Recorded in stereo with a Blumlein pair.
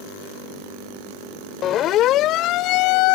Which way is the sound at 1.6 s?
30° left.